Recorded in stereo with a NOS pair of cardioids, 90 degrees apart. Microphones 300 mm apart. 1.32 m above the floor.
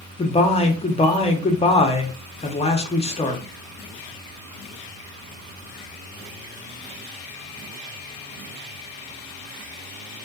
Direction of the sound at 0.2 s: 20° left.